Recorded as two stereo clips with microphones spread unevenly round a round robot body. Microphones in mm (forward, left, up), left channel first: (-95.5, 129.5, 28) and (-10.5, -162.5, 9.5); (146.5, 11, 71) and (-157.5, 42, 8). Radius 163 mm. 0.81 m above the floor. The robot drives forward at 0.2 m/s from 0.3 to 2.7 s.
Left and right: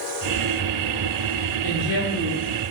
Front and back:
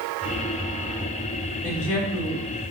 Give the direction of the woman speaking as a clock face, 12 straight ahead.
9 o'clock.